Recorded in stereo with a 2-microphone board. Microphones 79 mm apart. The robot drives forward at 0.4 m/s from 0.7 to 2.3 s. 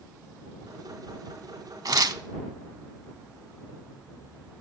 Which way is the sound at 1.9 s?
60° right (ahead or behind).